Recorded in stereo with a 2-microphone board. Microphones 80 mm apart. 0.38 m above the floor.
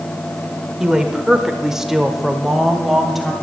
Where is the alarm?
No alarm in this recording.